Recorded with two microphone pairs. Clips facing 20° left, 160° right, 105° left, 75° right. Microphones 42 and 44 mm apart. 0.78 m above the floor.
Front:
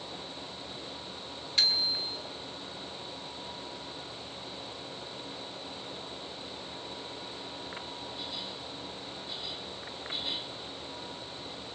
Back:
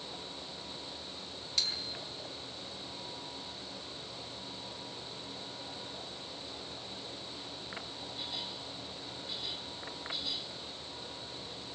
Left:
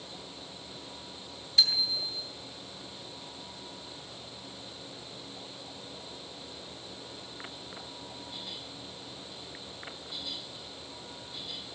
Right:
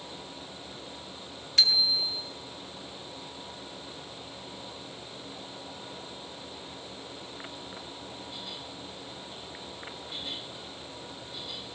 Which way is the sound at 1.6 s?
45° right.